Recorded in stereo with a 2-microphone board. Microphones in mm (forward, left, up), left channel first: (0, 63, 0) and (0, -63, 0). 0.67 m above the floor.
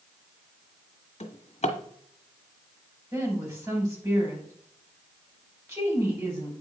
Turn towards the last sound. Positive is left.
turn(degrees=-25)  # may be behind; listen again after turning